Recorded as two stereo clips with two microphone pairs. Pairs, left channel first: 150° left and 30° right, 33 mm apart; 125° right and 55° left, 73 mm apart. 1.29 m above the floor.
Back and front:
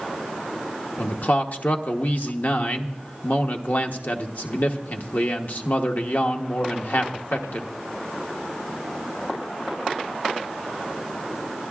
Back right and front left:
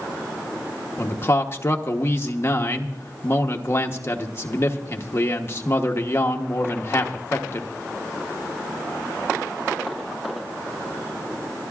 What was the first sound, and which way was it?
A man speaking, straight behind.